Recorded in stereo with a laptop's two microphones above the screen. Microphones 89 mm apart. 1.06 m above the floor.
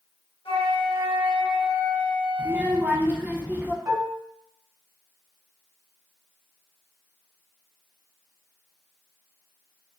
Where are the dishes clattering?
40° right (ahead or behind), 1.4 m.